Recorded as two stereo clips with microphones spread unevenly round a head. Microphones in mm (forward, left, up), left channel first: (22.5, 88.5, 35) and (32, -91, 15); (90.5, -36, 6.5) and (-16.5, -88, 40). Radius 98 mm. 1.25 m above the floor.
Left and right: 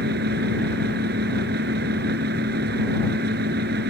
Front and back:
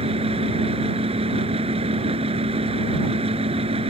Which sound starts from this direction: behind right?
A fan, at 0.0 s.